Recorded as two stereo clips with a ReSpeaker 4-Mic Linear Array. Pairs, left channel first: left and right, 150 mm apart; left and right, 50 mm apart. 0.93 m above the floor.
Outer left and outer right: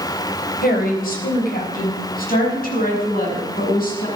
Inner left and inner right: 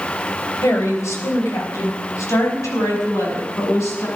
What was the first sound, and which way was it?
A woman speaking, 80° left.